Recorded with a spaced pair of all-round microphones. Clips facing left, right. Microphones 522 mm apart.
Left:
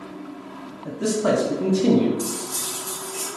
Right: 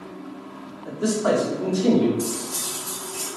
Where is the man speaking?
50° left (ahead or behind), 0.6 m.